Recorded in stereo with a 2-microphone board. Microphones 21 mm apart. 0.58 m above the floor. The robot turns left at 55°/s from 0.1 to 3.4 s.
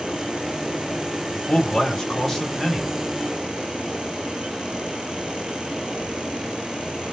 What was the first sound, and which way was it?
A man speaking, 80° left.